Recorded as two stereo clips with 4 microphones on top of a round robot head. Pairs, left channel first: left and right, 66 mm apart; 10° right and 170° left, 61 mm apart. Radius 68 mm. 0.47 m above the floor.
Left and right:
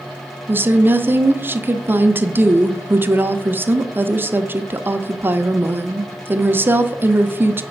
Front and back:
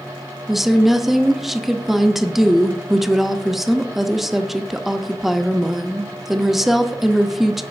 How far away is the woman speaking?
About 0.8 m.